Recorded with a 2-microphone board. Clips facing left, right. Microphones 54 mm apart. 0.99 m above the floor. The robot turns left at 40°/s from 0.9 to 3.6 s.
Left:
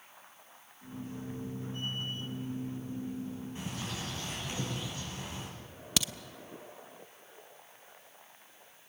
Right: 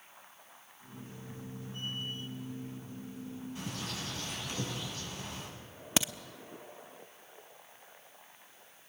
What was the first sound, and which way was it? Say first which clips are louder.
A bird: left 1 dB; 25° left (ahead or behind).